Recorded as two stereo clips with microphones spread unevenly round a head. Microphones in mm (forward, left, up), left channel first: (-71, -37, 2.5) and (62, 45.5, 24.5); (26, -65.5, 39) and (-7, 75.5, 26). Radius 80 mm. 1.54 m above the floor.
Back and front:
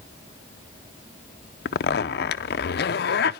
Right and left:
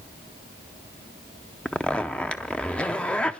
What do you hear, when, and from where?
1.6 s a zipper: 155° right, 0.5 m